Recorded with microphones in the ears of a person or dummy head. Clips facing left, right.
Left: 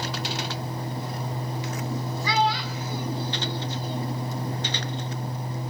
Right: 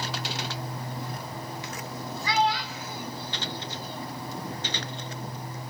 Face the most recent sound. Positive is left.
turn(degrees=70)  # may be behind; listen again after turning